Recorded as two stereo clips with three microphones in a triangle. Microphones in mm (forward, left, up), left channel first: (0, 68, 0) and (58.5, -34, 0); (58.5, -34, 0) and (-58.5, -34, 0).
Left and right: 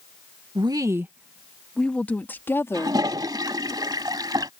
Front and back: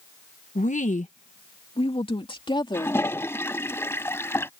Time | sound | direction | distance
0.6 | a woman speaking | 10° right | ?
2.7 | a toilet flushing | 50° right | ?